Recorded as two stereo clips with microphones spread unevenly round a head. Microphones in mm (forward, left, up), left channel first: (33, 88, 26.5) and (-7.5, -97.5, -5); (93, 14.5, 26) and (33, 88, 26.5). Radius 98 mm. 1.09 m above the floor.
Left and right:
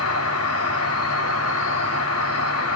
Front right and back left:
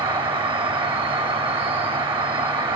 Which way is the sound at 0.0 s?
95° left.